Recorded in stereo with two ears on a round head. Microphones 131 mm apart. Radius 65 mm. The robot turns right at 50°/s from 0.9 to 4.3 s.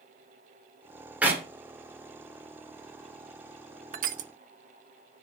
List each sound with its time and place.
1.2 s a clap: 10° right (ahead or behind), 3 m; by 1.4 s 20° right (ahead or behind), 3 m
3.9 s crushing: 60° right (ahead or behind), 0.7 m; by 4.3 s 55° right (ahead or behind), 0.7 m